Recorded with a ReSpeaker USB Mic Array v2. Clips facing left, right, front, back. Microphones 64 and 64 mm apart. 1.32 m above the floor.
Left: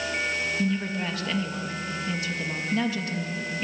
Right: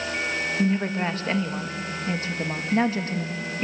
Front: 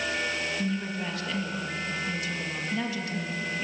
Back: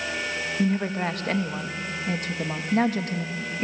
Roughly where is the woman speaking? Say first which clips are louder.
Right 4 dB, back 6 dB; behind right.